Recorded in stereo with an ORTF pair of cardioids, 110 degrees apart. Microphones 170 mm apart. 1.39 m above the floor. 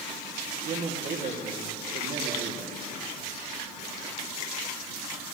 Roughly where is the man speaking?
Ahead right.